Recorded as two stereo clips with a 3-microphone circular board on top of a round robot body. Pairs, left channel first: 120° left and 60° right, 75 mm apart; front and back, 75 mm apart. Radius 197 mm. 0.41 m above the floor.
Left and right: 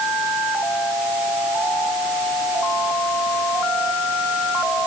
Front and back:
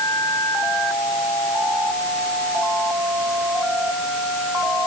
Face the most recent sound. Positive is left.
No sound to turn to.